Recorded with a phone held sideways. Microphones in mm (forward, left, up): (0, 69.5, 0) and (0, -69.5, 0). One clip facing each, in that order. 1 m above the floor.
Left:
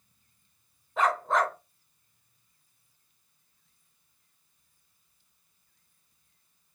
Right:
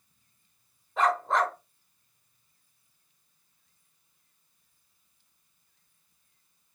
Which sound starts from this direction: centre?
A dog barking, at 1.0 s.